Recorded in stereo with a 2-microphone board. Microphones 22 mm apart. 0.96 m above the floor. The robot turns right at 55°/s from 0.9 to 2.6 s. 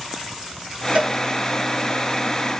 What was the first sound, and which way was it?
A cowbell, 60° right (ahead or behind).